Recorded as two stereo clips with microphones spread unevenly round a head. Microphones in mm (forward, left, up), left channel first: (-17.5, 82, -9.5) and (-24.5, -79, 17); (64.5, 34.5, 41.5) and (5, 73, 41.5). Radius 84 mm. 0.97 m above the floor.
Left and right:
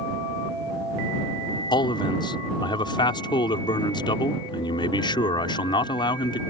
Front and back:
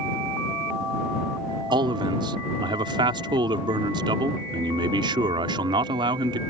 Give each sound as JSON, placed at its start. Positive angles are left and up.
{"t": 1.7, "sound": "a man speaking", "azimuth_deg": 150}